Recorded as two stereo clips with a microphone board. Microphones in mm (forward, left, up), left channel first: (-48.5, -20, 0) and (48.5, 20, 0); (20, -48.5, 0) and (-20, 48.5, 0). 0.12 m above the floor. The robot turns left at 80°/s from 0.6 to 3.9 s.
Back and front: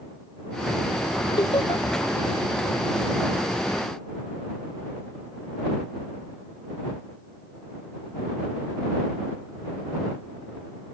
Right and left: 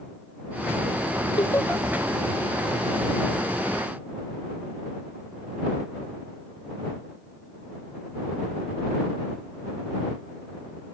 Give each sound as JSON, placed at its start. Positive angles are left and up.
{"t": 1.4, "sound": "laughter", "azimuth_deg": -110}